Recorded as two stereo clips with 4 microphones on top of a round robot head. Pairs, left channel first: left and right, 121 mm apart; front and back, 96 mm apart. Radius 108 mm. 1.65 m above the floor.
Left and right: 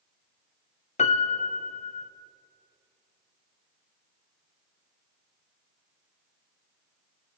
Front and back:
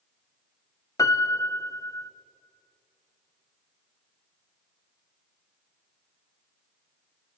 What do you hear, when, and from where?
1.0 s a piano: 60° left, 1.2 m